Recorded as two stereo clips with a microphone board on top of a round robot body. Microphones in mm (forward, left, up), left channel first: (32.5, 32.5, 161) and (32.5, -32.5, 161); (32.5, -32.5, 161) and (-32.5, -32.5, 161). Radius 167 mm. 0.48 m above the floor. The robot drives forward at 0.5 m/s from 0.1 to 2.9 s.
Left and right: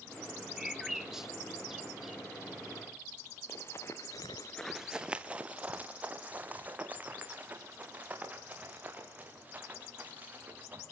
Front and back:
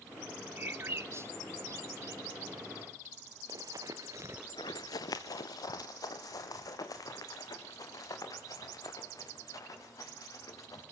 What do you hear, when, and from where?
0.6 s a bird: 165° right, 1.5 m; by 2.2 s 170° right, 2 m
3.5 s running footsteps: 145° left, 1.2 m; by 10.8 s 25° right, 7.5 m